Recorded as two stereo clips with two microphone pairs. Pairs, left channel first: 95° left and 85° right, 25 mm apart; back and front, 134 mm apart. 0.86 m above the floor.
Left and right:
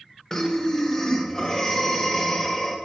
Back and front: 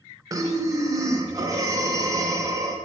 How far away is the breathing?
About 0.8 m.